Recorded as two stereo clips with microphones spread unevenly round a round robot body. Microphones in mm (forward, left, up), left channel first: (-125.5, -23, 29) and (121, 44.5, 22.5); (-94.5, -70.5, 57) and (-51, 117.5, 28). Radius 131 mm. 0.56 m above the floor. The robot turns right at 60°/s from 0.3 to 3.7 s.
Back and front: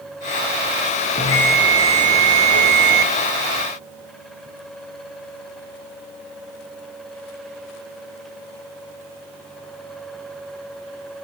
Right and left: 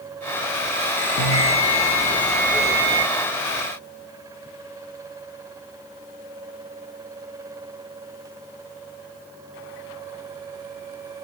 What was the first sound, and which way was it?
A bell, 95° right.